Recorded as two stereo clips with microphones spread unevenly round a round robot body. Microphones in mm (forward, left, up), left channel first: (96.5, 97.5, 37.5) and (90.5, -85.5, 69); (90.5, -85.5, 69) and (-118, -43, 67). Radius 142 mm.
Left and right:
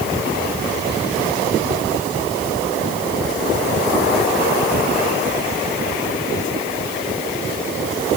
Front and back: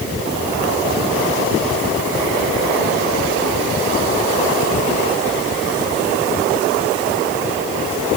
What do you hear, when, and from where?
Only background noise.